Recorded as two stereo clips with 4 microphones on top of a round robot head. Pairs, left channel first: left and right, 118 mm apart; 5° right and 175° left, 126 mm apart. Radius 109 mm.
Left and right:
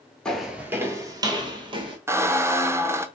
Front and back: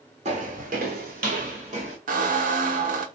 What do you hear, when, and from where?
0.2 s footsteps: 170° left, 0.6 m; by 2.0 s 130° right, 1.2 m
2.1 s a squeak: 160° right, 0.5 m